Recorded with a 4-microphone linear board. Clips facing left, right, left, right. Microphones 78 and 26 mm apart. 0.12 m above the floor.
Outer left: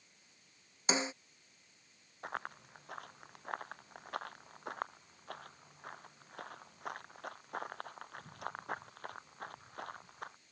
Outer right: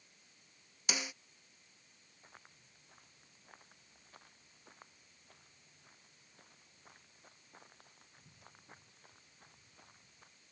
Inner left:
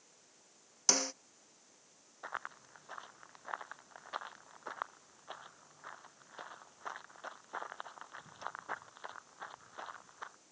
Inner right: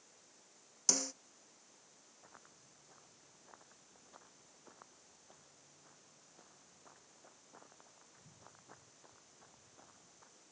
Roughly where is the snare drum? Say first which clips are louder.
Outer left 7 dB, inner left 4 dB; left.